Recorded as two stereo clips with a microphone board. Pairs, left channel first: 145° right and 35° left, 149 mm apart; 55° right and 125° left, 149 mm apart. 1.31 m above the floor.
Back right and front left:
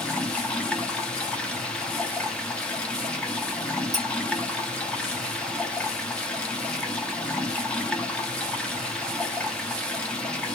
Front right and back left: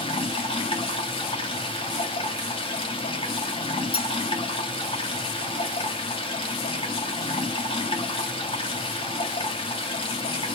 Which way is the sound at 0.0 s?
70° right.